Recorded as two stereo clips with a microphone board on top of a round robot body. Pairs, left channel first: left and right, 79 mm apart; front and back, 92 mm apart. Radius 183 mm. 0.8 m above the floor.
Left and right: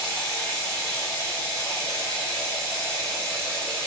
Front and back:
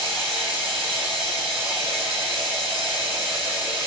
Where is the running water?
145° left, 0.9 m.